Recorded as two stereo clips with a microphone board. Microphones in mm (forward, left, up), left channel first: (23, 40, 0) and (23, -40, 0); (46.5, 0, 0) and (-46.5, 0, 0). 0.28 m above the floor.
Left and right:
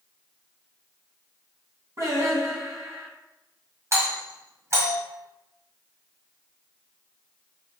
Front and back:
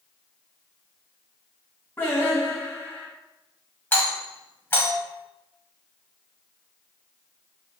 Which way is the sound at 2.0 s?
60° right.